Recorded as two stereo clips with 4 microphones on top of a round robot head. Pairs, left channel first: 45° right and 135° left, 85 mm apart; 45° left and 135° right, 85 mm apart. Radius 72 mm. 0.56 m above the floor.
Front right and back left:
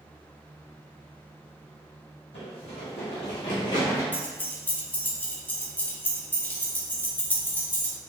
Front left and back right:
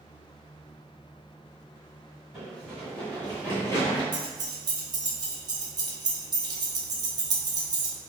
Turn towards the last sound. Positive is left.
turn(degrees=-115)